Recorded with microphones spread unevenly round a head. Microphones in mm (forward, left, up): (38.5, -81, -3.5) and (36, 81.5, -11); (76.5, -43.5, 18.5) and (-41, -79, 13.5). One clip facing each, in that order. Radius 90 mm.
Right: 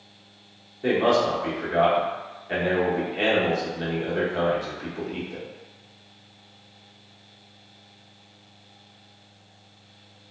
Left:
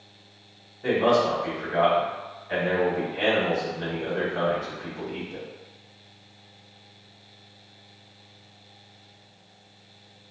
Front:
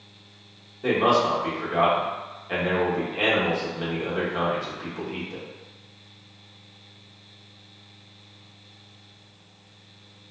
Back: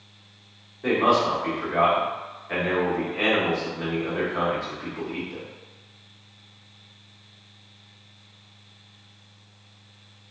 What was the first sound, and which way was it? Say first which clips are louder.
A man speaking: even, even; 55° right.